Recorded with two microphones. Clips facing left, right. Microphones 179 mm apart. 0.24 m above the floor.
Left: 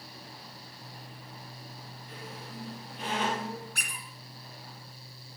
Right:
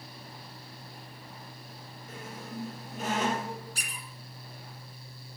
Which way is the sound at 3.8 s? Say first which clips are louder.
Even; 60° left (ahead or behind).